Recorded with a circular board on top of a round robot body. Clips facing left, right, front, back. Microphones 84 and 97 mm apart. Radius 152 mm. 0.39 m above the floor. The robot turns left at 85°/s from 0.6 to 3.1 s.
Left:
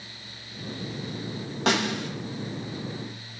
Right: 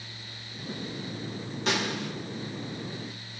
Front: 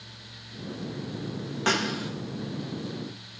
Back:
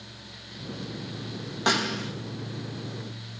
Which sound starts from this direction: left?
A snare drum, at 1.7 s.